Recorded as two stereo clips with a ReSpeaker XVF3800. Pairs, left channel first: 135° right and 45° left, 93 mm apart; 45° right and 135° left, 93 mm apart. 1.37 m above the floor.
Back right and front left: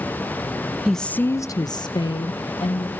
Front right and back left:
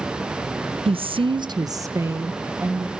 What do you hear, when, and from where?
0.8 s a woman speaking: 130° left, 1.0 m; by 2.9 s 155° right, 2.5 m